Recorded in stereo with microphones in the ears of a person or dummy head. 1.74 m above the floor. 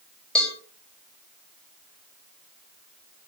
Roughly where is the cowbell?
Centre.